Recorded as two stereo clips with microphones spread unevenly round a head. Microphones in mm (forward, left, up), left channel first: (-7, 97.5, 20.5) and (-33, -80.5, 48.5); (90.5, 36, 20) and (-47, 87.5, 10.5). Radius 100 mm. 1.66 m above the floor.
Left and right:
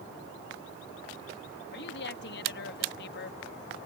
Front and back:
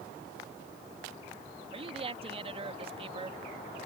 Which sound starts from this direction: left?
A woman speaking, at 1.7 s.